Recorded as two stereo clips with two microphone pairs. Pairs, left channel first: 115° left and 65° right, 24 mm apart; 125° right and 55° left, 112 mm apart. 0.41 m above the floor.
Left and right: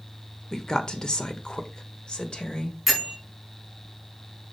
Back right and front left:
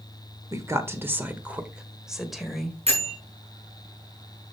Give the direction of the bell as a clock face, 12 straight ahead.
11 o'clock.